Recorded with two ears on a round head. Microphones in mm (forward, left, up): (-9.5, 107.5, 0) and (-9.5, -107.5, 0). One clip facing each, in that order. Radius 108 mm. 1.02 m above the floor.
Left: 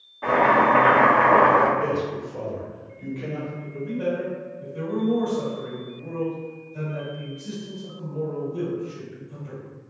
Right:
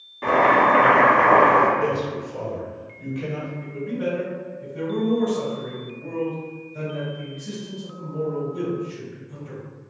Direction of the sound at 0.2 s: 35° right (ahead or behind).